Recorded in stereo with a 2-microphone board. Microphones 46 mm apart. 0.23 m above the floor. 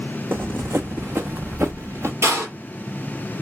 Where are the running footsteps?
55° right (ahead or behind), 0.7 m; by 2.1 s 65° right (ahead or behind), 1.6 m.